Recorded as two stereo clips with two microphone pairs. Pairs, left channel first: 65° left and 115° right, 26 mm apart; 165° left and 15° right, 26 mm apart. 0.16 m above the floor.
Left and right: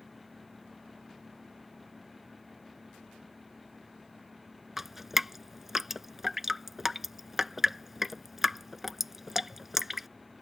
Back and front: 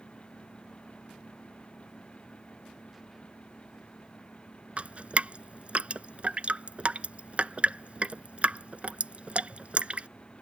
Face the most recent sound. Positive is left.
turn(degrees=-40)